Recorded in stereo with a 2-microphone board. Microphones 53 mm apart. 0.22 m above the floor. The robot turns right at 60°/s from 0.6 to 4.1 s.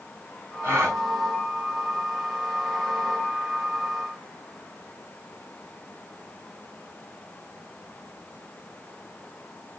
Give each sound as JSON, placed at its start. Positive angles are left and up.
{"t": 0.6, "sound": "a gasp", "side_deg": -45, "distance_m": 1.6}